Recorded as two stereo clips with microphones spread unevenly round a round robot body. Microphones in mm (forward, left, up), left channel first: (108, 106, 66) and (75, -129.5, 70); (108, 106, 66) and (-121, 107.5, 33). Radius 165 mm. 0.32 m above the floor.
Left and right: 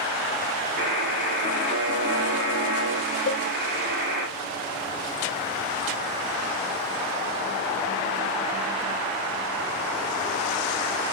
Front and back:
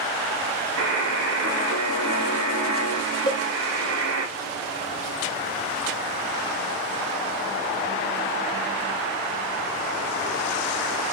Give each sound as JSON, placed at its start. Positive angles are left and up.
{"t": 0.8, "sound": "a buzzer", "azimuth_deg": -155, "distance_m": 0.8}
{"t": 3.3, "sound": "a cowbell", "azimuth_deg": 70, "distance_m": 0.9}